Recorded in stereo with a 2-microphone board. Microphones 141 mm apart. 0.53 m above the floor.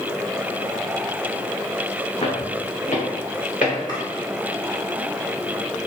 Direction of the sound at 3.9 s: 30° left (ahead or behind).